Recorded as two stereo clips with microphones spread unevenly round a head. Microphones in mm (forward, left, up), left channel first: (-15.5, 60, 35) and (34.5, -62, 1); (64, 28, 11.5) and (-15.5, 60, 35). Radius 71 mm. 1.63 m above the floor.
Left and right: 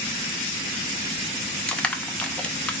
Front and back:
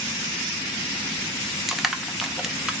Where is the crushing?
125° left, 0.6 m.